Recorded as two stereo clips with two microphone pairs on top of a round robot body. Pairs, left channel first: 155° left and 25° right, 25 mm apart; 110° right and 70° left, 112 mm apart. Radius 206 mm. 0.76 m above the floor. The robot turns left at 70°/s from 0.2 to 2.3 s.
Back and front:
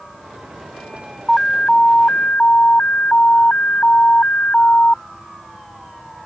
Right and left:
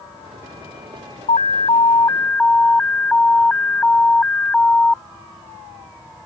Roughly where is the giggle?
No giggle in this recording.